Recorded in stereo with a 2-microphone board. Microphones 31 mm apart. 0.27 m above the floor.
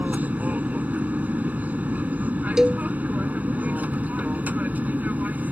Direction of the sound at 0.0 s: 60° right (ahead or behind).